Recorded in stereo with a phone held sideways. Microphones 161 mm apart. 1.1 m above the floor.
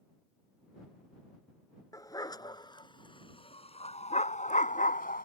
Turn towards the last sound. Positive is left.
turn(degrees=65)  # may be behind; listen again after turning